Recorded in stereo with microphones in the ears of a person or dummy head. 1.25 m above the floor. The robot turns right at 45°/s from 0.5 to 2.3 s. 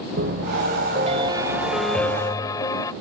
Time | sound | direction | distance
0.2 | a piano | 65° right | ?